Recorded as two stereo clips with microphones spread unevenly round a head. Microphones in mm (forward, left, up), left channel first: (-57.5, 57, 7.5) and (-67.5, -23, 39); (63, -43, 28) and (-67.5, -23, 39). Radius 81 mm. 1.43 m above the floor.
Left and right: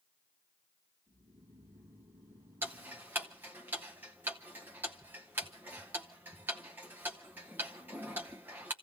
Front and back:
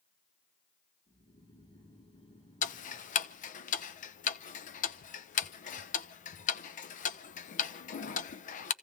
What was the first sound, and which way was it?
Snoring, 50° right.